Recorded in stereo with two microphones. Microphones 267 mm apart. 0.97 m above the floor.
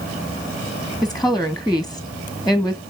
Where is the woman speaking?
Centre (ahead or behind), 0.8 m.